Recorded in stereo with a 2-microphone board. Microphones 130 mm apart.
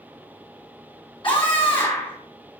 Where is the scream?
45° left (ahead or behind), 1.9 m.